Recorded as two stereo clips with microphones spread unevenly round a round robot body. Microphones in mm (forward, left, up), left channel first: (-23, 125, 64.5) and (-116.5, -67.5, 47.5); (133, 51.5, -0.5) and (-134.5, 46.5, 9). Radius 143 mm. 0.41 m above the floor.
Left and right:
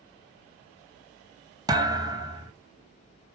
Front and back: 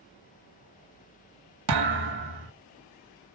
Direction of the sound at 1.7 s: 170° left.